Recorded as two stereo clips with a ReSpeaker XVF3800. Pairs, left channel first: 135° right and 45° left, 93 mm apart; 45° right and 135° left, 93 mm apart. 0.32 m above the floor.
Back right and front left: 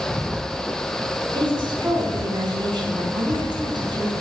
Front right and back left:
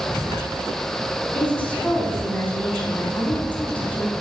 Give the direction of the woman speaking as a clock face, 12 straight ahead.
11 o'clock.